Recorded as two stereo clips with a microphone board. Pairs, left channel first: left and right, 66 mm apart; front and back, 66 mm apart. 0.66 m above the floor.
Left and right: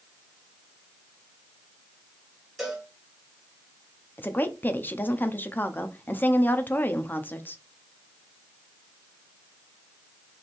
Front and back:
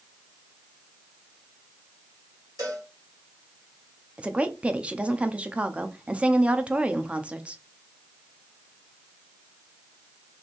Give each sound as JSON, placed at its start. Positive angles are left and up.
{"t": 2.6, "sound": "a cowbell", "azimuth_deg": -165, "distance_m": 1.9}
{"t": 4.2, "sound": "a woman speaking", "azimuth_deg": 125, "distance_m": 0.6}